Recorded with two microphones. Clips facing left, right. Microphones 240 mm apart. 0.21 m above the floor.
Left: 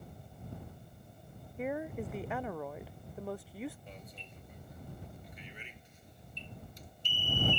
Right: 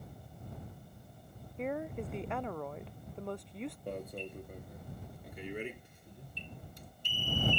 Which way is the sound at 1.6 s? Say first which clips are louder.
Even; 5° left (ahead or behind).